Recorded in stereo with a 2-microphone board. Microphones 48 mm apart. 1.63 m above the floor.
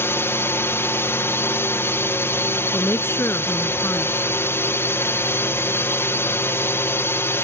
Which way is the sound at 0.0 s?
60° left (ahead or behind).